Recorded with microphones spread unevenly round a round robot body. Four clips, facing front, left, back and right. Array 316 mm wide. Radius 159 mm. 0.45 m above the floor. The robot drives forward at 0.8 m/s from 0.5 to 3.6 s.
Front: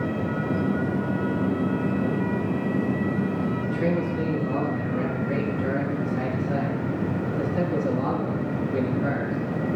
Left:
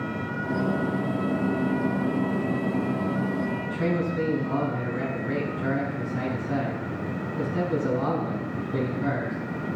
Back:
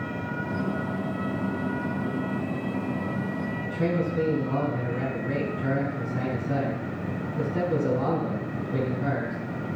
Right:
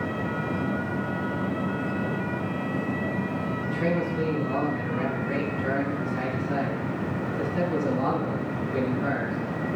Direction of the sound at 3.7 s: 170° left.